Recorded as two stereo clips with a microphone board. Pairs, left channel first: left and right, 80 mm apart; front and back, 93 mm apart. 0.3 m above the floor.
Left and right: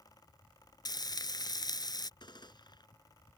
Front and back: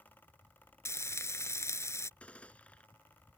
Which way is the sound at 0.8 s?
60° left.